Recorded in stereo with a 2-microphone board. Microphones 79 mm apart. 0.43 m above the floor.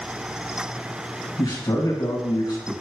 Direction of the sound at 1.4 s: 65° left (ahead or behind).